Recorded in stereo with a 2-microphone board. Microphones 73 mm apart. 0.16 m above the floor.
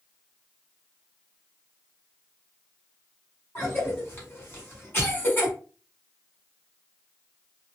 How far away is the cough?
About 1.6 m.